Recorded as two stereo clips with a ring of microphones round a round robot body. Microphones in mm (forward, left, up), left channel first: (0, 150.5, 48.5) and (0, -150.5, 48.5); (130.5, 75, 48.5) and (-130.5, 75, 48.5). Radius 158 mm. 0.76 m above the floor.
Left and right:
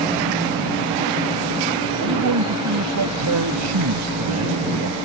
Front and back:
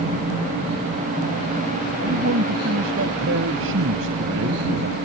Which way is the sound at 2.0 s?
130° right.